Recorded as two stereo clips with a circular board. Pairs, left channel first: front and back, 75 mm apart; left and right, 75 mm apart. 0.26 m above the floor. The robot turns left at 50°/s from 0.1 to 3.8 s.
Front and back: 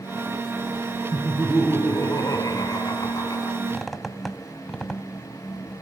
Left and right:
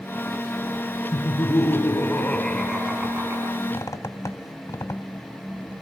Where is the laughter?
80° left, 2 m; by 3.6 s 45° right, 2 m.